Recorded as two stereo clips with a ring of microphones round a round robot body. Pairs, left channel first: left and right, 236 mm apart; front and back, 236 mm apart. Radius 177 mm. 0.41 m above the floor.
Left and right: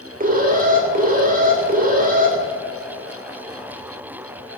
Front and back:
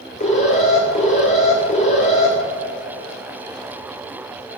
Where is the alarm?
55° right, 2.5 m.